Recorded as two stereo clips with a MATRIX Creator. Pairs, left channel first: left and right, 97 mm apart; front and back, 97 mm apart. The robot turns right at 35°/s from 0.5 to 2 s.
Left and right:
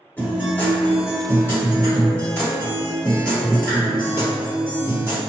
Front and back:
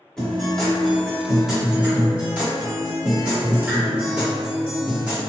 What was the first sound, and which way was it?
A guitar, 75° left.